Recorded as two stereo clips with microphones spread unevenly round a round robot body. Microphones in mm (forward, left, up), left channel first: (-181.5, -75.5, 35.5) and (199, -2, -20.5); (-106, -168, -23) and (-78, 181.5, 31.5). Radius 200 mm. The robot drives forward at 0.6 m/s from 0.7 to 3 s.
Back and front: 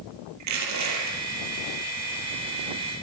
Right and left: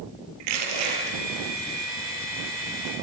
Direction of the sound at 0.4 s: 60° left.